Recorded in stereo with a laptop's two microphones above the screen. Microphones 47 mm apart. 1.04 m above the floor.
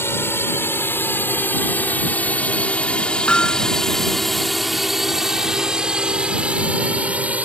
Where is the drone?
55° left (ahead or behind); by 7.4 s 30° right (ahead or behind).